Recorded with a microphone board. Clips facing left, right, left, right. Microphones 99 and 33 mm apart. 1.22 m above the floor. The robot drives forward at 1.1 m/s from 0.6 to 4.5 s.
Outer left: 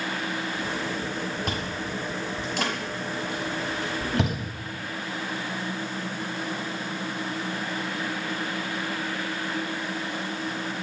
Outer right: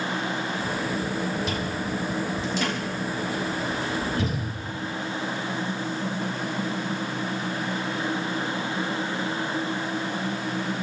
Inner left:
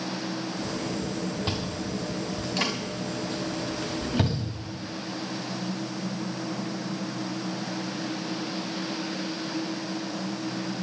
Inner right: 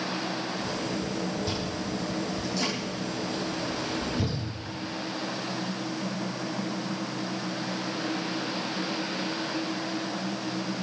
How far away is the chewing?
About 7.5 m.